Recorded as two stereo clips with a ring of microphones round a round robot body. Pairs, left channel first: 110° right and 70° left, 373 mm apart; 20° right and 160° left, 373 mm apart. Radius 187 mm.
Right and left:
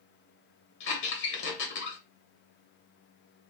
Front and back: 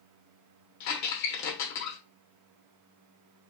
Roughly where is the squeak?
Ahead right.